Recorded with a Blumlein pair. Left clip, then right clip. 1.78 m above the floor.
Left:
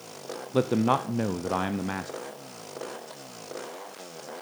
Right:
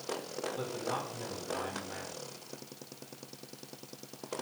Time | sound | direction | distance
0.5 | a man speaking | 45° left | 0.8 m